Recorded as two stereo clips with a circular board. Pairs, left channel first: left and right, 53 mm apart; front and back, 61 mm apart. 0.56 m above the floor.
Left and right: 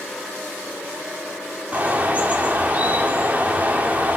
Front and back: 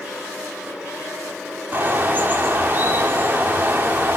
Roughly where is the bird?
Behind right.